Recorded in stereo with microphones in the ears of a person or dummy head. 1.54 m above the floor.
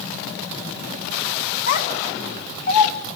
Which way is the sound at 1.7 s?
60° left (ahead or behind).